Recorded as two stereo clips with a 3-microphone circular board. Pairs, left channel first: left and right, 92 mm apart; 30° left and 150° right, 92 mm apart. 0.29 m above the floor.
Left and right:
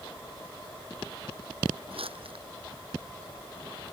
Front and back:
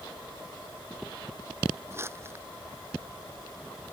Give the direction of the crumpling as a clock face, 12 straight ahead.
3 o'clock.